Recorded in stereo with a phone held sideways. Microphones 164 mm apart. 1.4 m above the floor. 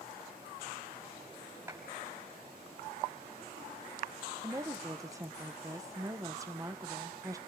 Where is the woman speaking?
20° right (ahead or behind), 0.9 m.